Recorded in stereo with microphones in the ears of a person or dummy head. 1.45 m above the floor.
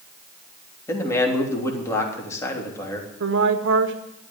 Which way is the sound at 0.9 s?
15° left (ahead or behind).